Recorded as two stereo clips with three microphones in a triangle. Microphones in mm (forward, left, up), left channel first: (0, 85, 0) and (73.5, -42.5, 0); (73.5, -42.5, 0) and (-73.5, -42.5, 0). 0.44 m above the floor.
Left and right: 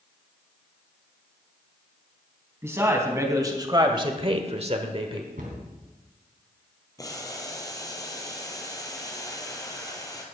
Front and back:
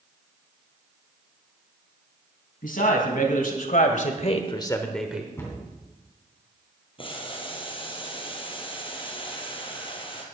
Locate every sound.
2.6 s a man speaking: 10° left, 3.5 m; by 5.3 s 105° right, 1.4 m
5.4 s a cupboard door: 70° right, 3.5 m
7.0 s boiling: 55° left, 2 m